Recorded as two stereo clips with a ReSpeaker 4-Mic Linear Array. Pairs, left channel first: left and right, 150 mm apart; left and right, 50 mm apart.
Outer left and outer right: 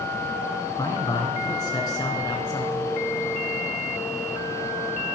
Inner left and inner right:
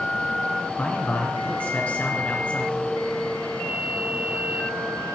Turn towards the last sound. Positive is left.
turn(degrees=25)  # may be behind; listen again after turning